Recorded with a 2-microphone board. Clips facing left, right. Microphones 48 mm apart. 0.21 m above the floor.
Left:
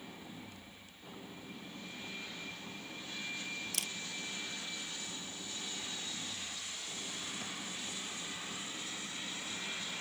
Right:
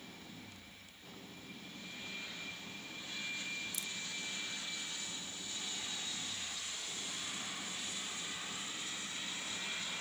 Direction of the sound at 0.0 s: 15° left (ahead or behind).